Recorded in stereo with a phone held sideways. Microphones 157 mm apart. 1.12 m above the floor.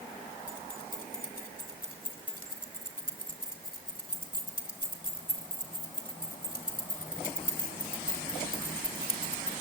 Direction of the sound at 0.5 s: 65° left (ahead or behind).